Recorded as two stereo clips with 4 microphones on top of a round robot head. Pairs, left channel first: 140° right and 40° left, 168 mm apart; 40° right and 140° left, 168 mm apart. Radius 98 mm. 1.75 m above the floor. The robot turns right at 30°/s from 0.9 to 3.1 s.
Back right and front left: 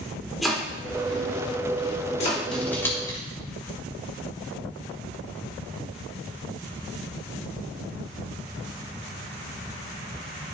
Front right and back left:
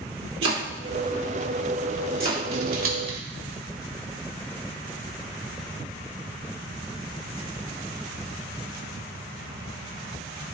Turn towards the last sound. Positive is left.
turn(degrees=150)